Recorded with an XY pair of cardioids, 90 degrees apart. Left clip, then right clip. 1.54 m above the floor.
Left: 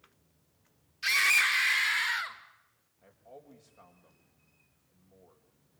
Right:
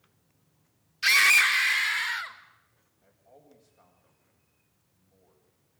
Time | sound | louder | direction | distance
1.0 | a scream | right 5 dB | 55° right | 1.2 m
3.0 | a man speaking | left 5 dB | 70° left | 7.5 m